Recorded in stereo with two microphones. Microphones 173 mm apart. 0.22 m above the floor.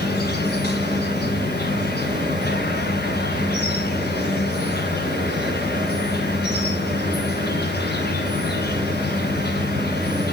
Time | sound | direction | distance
0.0 | an insect | 70° left (ahead or behind) | 2.5 m